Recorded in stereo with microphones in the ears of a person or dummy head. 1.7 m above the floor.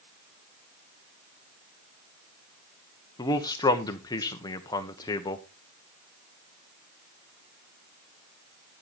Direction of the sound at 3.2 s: 20° left (ahead or behind).